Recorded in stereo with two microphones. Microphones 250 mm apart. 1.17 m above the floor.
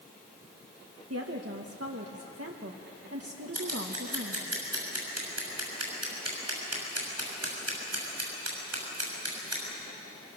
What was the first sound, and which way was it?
A woman speaking, 70° right (ahead or behind).